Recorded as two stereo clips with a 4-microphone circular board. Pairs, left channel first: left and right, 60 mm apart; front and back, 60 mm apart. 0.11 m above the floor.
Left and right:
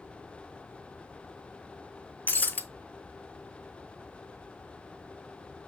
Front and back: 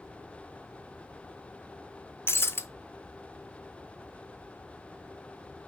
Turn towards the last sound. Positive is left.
turn(degrees=35)